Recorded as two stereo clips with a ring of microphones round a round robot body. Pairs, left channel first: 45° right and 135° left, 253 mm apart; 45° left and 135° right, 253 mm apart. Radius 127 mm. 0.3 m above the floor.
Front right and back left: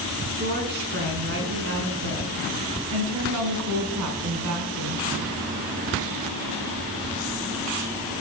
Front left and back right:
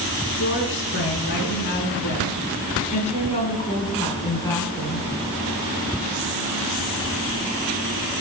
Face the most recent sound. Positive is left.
turn(degrees=130)